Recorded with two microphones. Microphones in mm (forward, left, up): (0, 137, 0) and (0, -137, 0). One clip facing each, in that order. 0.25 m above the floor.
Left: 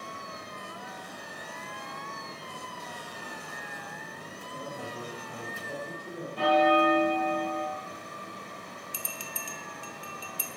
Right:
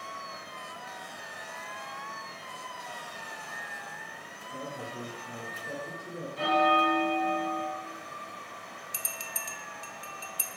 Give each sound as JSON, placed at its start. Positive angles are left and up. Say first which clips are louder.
{"t": 4.5, "sound": "a man speaking", "louder": "right 1 dB", "side_deg": -5, "distance_m": 2.0}
{"t": 6.4, "sound": "a bell", "louder": "left 4 dB", "side_deg": 85, "distance_m": 2.5}
{"t": 8.9, "sound": "a bell", "louder": "left 3 dB", "side_deg": -50, "distance_m": 0.9}